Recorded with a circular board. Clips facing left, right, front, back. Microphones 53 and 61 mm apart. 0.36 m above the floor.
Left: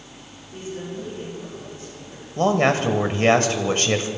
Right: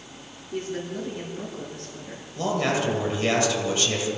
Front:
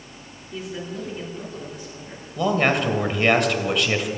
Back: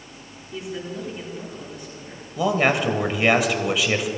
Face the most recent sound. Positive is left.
turn(degrees=95)